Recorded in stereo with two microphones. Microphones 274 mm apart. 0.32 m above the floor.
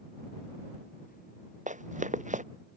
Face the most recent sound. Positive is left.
turn(degrees=-25)  # may be behind; listen again after turning